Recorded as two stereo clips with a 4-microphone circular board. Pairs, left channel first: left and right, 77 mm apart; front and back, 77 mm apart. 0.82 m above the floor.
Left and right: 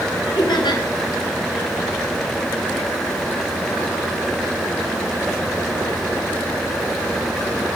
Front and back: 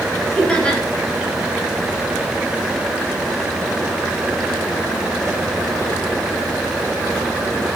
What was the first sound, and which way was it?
Laughter, 80° left.